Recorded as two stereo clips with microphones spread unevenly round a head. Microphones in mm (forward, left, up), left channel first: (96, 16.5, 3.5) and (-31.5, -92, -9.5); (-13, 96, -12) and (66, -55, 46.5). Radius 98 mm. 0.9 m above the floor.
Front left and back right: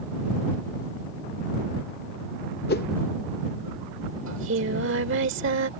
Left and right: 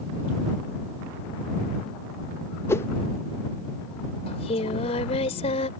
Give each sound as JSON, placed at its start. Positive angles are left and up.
{"t": 2.7, "sound": "a whoosh", "azimuth_deg": 60}
{"t": 4.3, "sound": "singing", "azimuth_deg": -175}